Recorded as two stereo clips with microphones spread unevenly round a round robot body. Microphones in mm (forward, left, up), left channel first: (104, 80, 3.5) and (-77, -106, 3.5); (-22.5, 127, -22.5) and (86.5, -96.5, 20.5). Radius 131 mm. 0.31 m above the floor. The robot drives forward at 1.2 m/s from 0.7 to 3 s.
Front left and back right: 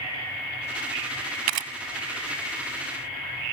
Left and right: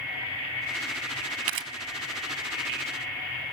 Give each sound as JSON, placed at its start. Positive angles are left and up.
{"t": 1.5, "sound": "a camera shutter", "azimuth_deg": -105, "distance_m": 1.0}